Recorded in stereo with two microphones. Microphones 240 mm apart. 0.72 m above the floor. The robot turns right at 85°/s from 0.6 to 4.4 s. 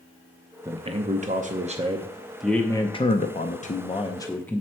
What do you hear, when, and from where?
0.7 s a man speaking: 150° right, 0.5 m; by 4.6 s 165° left, 0.5 m